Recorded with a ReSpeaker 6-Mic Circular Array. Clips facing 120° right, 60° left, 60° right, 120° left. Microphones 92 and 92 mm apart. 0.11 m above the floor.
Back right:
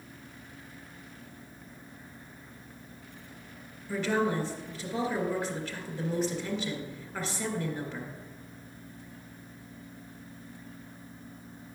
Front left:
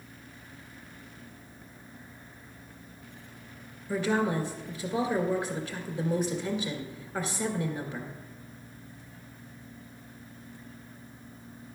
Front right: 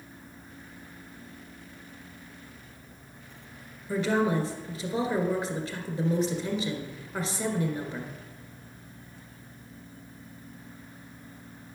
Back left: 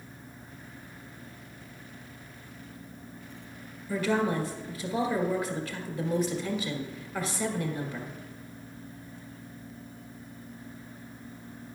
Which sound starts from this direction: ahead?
A woman speaking, at 3.9 s.